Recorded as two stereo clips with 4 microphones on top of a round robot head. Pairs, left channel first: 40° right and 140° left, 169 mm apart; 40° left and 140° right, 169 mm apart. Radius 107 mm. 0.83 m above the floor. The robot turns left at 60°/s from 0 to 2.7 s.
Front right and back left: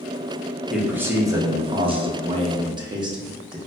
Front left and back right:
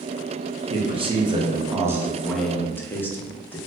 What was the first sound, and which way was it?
A man speaking, 135° right.